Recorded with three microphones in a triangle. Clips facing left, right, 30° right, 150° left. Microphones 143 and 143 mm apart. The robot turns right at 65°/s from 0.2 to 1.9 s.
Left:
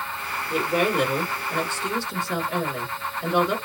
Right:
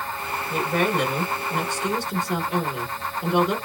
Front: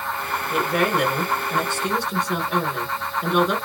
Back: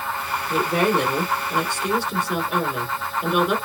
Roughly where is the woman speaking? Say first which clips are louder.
Left 1 dB, back 2 dB; behind left.